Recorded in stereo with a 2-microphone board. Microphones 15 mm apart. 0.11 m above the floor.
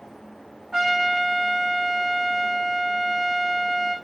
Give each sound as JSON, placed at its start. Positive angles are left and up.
{"t": 0.7, "sound": "a trumpet", "side_deg": -40, "distance_m": 4.5}